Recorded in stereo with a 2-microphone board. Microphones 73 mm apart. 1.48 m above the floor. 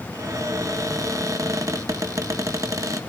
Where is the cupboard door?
45° right (ahead or behind), 1.2 m.